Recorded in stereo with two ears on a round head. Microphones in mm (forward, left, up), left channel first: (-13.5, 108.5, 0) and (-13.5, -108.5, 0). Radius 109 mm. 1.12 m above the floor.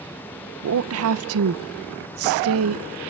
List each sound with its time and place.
0.6 s a woman speaking: 60° right (ahead or behind), 0.8 m